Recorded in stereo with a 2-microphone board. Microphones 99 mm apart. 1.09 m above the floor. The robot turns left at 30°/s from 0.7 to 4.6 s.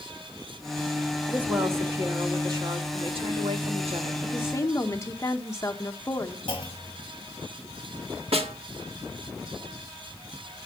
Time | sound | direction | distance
1.3 | a woman speaking | 15° right | 1.9 m
4.2 | a woman speaking | 20° left (ahead or behind) | 1.3 m
6.5 | a clunk | 55° left (ahead or behind) | 1.9 m
8.3 | a snare drum | 90° right | 1.7 m